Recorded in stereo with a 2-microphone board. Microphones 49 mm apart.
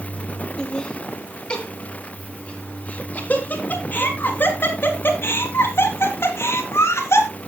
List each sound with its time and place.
0.6 s laughter: 15° left (ahead or behind), 4.5 m; by 7.3 s 65° left (ahead or behind), 3.5 m